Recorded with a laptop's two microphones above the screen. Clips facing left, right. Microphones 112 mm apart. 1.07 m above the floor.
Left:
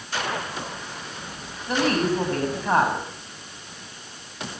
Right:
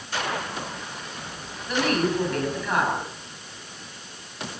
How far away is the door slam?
I don't hear a door slam.